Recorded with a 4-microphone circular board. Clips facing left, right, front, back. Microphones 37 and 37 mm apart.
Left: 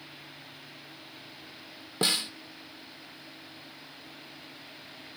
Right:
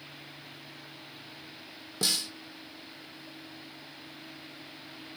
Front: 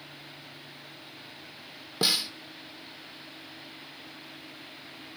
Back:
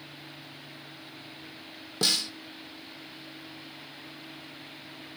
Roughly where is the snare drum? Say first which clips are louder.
Left 3 dB, front 1 dB; ahead left.